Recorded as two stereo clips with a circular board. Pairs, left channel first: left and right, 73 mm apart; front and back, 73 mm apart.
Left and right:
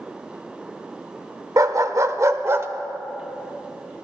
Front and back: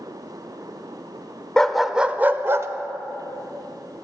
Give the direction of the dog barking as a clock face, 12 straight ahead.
3 o'clock.